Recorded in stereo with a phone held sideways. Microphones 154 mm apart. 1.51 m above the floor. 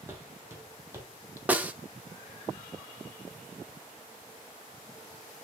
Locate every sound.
0.1 s footsteps: 15° right (ahead or behind), 4.5 m; by 1.4 s 20° right (ahead or behind), 2.5 m
1.5 s a snare drum: 10° right (ahead or behind), 1.1 m